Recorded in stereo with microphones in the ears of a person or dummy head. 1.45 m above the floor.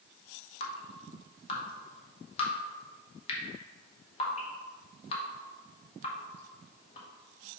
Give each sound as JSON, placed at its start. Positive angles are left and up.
{"t": 0.6, "sound": "dripping", "side_deg": 35, "distance_m": 0.9}